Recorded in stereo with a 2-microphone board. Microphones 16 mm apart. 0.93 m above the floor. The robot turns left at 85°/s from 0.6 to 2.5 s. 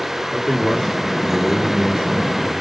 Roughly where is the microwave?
I don't hear a microwave.